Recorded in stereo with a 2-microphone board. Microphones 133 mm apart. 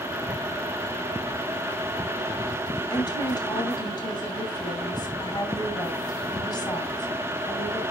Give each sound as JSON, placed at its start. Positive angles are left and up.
{"t": 2.9, "sound": "a woman speaking", "side_deg": 35, "distance_m": 2.0}